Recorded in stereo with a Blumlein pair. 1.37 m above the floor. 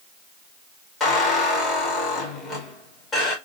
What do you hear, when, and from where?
1.0 s a squeak: 15° left, 2.5 m